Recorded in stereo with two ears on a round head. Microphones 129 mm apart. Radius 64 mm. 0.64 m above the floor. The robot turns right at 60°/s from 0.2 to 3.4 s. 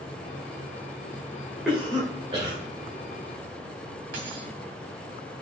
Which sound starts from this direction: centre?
A cough, at 1.6 s.